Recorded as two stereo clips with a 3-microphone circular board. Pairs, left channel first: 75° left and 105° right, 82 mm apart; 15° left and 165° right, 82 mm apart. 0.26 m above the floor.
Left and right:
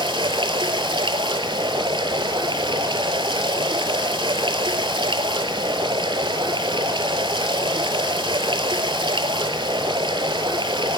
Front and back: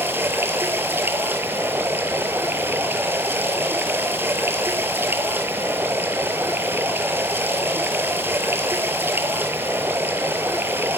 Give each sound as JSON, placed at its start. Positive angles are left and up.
{"t": 0.0, "sound": "running water", "azimuth_deg": -105, "distance_m": 0.8}